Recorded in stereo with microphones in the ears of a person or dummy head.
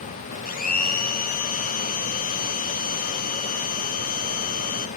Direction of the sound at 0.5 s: 45° left (ahead or behind).